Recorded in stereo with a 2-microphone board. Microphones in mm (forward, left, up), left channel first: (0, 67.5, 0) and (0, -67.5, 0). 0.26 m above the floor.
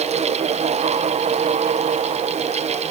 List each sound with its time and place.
Only background noise.